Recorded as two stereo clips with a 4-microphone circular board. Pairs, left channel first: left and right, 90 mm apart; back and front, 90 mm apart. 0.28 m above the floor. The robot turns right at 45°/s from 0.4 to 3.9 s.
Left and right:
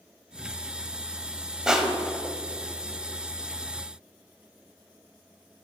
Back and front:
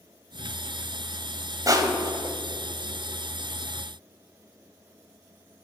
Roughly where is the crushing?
Ahead.